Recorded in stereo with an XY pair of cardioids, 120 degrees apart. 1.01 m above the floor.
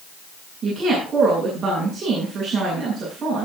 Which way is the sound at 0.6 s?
40° right.